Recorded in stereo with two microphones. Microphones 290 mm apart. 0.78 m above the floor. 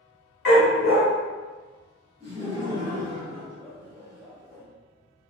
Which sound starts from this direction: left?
A dog barking, at 0.5 s.